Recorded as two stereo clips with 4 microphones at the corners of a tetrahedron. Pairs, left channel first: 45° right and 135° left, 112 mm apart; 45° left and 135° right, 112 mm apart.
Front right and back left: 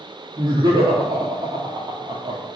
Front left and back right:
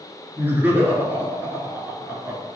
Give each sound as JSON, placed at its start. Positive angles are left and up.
{"t": 0.4, "sound": "laughter", "azimuth_deg": 160, "distance_m": 1.5}